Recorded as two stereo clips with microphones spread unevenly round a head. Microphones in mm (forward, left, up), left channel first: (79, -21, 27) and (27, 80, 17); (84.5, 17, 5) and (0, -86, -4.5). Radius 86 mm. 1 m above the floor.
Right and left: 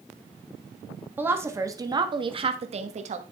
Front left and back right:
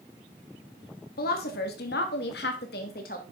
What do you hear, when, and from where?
1.2 s a woman speaking: 45° left, 1.4 m; by 3.2 s 100° left, 1.3 m